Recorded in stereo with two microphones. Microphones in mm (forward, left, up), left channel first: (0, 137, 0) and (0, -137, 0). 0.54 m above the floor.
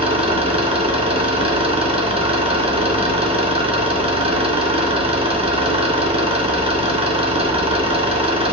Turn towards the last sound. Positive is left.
turn(degrees=-20)  # may be behind; listen again after turning